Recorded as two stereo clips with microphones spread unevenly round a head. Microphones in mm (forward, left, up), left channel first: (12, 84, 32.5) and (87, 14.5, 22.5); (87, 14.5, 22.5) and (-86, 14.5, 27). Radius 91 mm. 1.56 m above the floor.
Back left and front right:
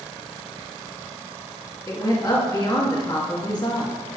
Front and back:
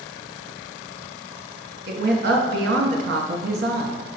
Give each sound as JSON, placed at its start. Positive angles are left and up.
{"t": 1.9, "sound": "a woman speaking", "azimuth_deg": -145, "distance_m": 1.5}